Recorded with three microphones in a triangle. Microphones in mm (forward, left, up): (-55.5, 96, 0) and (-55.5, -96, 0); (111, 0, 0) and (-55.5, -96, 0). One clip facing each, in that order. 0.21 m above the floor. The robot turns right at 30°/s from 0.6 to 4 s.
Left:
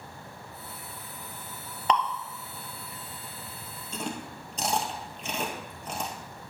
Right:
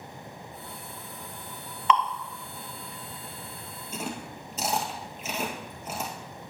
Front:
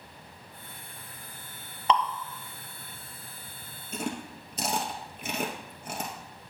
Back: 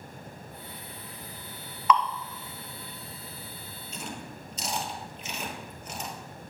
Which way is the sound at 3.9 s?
10° right.